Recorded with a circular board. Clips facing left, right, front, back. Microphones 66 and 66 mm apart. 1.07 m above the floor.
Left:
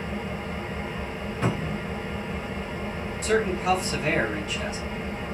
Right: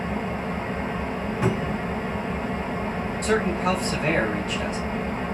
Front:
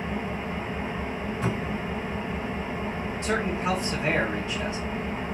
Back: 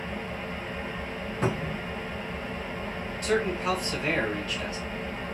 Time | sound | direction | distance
0.0 | an engine running | 65° right | 0.7 m
1.4 | a cupboard door | 165° right | 1.0 m
3.2 | a man speaking | 65° right | 1.5 m